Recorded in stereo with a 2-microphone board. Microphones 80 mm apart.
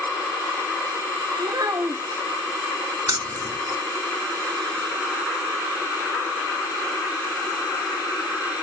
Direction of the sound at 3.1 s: 55° right (ahead or behind).